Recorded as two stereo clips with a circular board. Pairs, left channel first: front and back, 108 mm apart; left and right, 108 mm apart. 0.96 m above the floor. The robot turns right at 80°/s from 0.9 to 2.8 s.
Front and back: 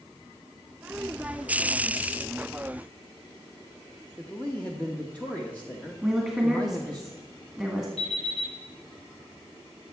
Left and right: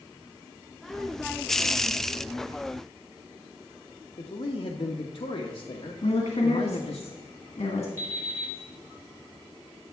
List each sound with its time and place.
4.2 s a man speaking: 75° left, 0.9 m
6.0 s a woman speaking: 90° left, 1.6 m
8.0 s an alarm clock: 20° left, 4.5 m